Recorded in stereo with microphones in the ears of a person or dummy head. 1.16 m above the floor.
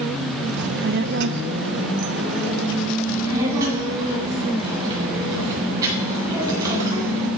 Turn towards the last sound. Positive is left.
turn(degrees=-20)  # may be behind; listen again after turning